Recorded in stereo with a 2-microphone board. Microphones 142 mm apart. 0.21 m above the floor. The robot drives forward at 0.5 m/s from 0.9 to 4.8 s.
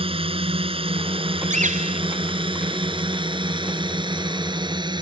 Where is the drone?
40° right (ahead or behind); by 5.0 s 30° right (ahead or behind).